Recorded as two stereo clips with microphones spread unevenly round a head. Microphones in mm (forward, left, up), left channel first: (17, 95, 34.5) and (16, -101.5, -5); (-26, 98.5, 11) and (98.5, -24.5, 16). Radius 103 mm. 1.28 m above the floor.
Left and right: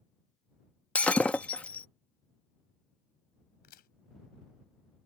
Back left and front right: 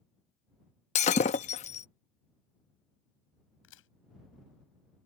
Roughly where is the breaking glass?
Behind left.